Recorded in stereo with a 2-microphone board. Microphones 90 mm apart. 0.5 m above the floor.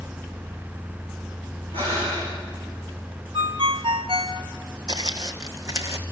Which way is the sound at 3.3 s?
80° right.